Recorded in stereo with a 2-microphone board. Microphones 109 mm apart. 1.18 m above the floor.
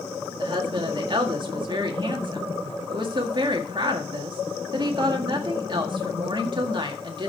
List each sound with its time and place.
0.4 s a woman speaking: 45° right (ahead or behind), 1.7 m